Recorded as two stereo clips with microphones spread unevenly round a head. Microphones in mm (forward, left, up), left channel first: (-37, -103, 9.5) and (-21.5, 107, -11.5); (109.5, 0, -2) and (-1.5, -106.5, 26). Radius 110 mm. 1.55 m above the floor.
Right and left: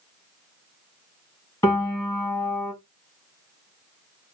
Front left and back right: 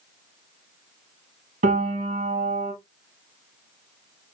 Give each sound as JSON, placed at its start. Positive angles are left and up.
{"t": 1.6, "sound": "a piano", "azimuth_deg": -165, "distance_m": 1.1}